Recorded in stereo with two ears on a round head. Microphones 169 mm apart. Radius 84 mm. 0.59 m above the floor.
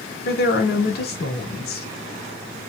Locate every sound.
0.2 s a woman speaking: 55° left (ahead or behind), 1.6 m